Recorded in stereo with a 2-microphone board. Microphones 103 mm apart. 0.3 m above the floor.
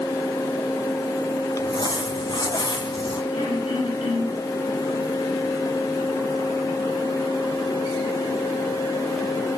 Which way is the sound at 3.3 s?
85° left.